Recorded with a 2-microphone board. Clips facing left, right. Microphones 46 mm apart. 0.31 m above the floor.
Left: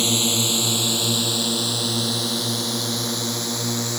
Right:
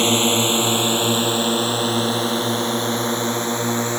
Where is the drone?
35° right (ahead or behind).